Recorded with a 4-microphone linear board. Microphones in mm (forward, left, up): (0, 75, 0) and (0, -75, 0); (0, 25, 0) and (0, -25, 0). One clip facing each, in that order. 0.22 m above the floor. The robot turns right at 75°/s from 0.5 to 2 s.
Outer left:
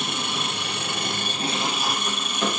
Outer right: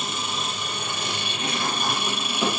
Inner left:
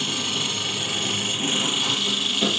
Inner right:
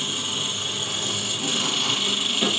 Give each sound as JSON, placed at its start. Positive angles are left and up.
{"t": 0.0, "sound": "an engine running", "azimuth_deg": 75, "distance_m": 4.0}